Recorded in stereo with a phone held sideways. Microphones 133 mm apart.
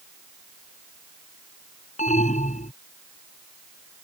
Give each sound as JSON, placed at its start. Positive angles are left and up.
{"t": 2.0, "sound": "an alarm", "side_deg": 65}